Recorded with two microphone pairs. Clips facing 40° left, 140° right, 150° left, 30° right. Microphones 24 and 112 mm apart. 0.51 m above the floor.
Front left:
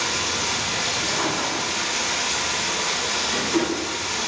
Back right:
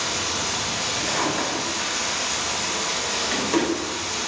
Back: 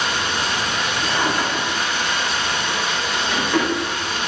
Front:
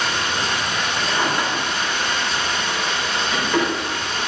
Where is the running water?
70° left, 0.7 m.